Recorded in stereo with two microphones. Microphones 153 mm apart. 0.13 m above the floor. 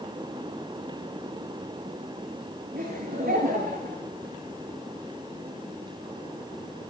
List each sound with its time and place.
2.7 s laughter: 80° right, 9.5 m